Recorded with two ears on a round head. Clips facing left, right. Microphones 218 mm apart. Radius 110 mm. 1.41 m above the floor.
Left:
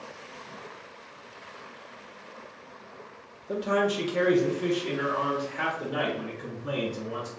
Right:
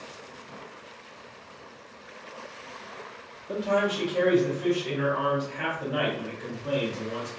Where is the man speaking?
10° left (ahead or behind), 0.8 m; by 7.3 s 80° left, 2 m.